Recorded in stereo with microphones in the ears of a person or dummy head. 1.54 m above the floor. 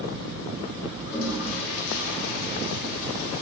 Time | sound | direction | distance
1.1 | a toilet flushing | 55° left (ahead or behind) | 1.9 m